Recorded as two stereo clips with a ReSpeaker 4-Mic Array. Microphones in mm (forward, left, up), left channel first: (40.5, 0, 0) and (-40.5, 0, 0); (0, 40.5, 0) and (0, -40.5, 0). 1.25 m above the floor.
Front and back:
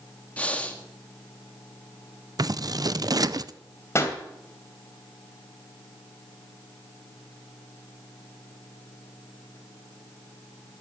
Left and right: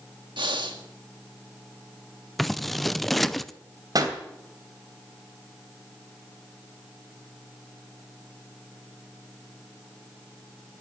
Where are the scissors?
Straight behind, 0.6 m.